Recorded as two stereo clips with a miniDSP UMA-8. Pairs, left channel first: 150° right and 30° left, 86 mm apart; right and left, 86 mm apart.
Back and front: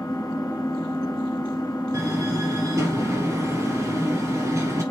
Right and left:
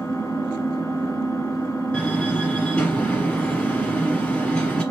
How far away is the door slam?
About 2 m.